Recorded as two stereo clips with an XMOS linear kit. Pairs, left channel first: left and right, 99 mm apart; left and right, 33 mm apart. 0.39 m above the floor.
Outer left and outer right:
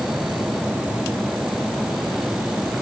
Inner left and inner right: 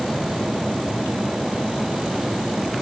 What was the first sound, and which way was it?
Only background noise.